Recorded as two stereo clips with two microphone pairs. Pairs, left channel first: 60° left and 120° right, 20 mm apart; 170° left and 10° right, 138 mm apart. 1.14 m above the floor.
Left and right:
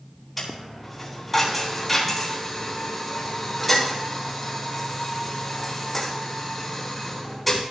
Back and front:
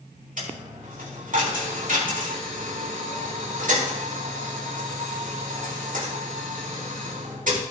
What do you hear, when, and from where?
0.4 s a dropped coin: 20° right, 3.5 m